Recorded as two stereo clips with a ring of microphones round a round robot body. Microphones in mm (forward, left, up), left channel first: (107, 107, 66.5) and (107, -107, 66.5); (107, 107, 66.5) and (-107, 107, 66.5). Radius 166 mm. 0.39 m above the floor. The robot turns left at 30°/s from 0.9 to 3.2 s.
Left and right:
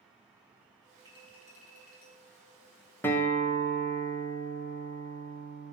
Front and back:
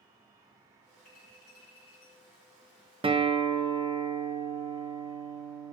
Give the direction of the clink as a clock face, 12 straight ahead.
1 o'clock.